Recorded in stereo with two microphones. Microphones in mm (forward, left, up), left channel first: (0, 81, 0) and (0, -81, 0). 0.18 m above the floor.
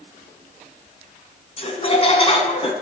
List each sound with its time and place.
1.6 s laughter: 35° left (ahead or behind), 1.3 m